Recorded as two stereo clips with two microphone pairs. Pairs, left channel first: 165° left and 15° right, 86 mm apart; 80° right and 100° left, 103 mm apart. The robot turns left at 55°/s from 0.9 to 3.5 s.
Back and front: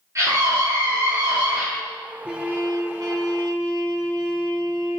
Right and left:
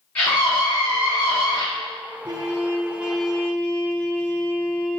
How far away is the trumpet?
About 0.7 m.